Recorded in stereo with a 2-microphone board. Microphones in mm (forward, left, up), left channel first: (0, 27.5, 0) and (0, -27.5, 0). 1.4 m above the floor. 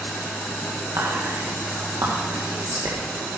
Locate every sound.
1.0 s whispering: 85° right, 1.6 m